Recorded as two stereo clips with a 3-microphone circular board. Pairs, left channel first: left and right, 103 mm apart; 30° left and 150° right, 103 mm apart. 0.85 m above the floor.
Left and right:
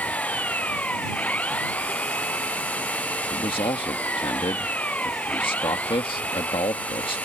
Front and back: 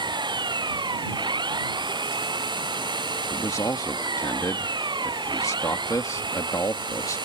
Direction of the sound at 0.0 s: 165° left.